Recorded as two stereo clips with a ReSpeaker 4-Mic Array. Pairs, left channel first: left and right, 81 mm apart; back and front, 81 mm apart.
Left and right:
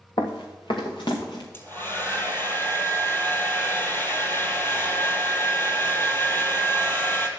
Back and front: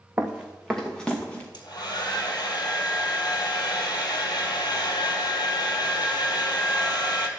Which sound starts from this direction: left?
Running footsteps, at 0.2 s.